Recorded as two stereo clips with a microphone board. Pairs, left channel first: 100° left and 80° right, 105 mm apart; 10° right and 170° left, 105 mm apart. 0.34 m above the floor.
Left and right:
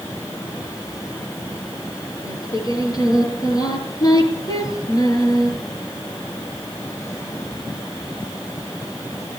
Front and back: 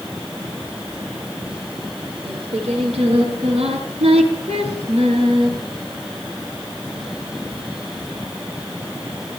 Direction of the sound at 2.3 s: 150° left.